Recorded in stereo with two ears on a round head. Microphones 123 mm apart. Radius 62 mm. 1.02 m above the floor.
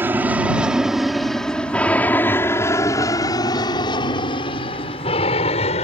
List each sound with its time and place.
0.0 s an aircraft: 15° right (ahead or behind); by 5.9 s 50° left (ahead or behind)